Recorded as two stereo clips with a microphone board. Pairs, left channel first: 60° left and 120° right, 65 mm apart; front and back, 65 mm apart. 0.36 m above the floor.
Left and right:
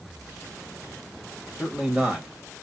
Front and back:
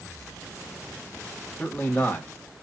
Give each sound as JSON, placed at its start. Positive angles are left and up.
{"t": 1.6, "sound": "a man speaking", "azimuth_deg": -45, "distance_m": 1.8}